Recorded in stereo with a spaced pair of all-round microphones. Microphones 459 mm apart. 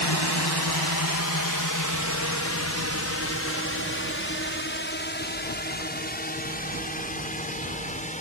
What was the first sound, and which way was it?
A drone, 60° left (ahead or behind).